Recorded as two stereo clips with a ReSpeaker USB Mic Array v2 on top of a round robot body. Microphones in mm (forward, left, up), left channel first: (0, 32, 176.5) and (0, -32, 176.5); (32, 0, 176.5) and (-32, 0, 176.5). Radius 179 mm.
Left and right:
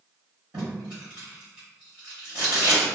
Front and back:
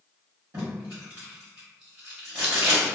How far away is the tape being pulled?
About 1.0 m.